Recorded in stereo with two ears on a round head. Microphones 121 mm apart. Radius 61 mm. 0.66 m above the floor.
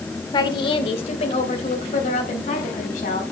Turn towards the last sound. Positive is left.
turn(degrees=65)  # may be behind; listen again after turning